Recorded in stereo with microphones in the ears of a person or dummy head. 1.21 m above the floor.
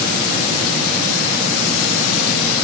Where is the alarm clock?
I don't hear an alarm clock.